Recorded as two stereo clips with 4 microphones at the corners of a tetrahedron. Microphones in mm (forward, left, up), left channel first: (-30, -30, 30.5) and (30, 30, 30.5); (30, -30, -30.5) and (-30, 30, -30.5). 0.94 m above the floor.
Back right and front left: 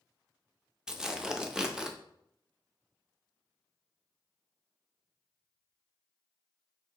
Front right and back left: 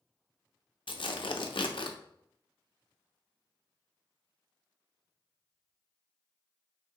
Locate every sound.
0.9 s tearing paper: 35° right, 0.5 m